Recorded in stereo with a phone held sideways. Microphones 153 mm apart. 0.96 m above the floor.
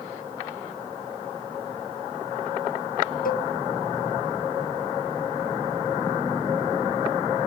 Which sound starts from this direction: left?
A cowbell, at 3.2 s.